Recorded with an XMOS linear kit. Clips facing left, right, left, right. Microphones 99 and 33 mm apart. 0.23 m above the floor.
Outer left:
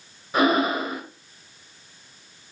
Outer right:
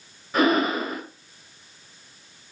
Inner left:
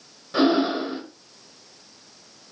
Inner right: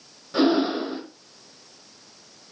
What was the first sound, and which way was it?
Breathing, 10° left (ahead or behind).